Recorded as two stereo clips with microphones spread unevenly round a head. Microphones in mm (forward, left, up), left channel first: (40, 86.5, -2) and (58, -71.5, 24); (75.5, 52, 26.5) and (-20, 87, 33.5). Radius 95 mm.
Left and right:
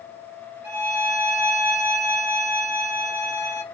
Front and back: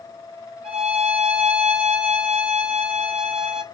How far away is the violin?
About 1.4 m.